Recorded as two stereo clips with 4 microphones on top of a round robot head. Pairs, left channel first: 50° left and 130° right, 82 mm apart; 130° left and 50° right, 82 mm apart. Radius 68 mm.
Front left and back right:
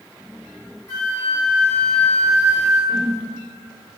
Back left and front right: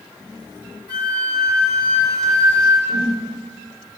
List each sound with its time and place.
0.9 s a flute: 100° left, 1.9 m
2.9 s a whoosh: 55° right, 1.4 m